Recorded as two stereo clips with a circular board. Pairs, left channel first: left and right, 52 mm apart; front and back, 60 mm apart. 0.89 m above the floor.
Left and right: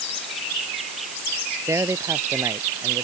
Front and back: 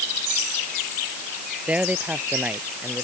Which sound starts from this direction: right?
A man speaking, at 1.7 s.